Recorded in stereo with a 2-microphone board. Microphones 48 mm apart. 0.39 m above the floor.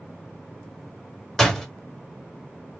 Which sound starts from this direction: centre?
A door slam, at 1.4 s.